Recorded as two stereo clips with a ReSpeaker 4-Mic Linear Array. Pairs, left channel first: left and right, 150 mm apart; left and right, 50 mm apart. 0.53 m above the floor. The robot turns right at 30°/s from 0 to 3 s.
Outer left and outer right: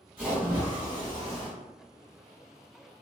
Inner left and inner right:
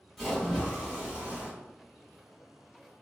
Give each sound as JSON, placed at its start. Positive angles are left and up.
{"t": 0.2, "sound": "a splash", "azimuth_deg": -175, "distance_m": 1.5}